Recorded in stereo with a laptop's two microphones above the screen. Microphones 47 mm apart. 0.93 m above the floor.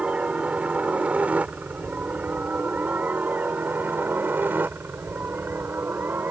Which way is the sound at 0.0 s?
25° right (ahead or behind).